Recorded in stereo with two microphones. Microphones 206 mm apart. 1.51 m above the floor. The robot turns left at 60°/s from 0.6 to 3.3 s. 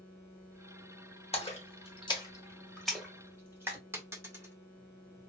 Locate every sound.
1.3 s a splash: 30° left (ahead or behind), 1.4 m; by 3.8 s 10° right (ahead or behind), 1.4 m
3.9 s a dropped coin: 15° right (ahead or behind), 1.3 m